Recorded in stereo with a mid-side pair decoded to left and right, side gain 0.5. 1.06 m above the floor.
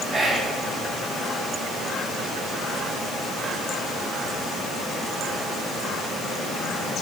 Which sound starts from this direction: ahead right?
Whispering, at 0.1 s.